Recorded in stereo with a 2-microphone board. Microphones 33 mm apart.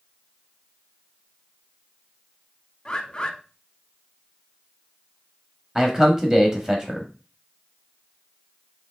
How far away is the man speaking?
About 0.9 m.